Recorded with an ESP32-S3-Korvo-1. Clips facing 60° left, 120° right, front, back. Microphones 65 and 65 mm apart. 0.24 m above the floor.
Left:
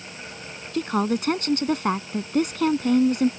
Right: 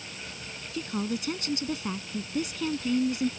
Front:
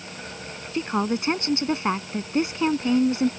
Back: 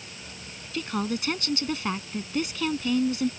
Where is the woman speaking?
60° left.